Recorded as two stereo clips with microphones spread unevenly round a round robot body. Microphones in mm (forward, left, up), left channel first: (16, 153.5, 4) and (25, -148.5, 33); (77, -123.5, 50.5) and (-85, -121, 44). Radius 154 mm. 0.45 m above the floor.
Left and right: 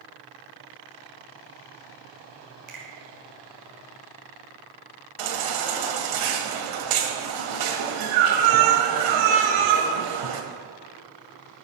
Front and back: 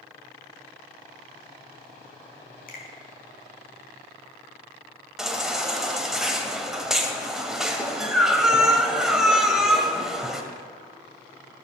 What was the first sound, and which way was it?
A finger snap, 30° right.